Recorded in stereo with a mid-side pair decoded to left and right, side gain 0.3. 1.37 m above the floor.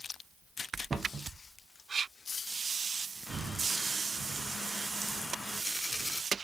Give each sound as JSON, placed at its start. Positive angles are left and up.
{"t": 0.9, "sound": "a cupboard door", "azimuth_deg": -45, "distance_m": 0.6}
{"t": 3.3, "sound": "breathing", "azimuth_deg": -70, "distance_m": 0.6}